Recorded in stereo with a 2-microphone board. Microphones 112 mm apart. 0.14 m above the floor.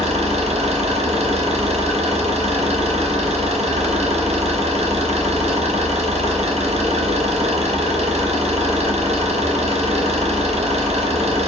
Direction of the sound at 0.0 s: 75° right (ahead or behind).